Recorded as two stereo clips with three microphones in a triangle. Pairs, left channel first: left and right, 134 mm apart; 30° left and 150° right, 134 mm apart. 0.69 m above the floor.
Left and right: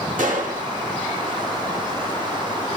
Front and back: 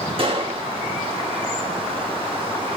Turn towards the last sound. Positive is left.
turn(degrees=-100)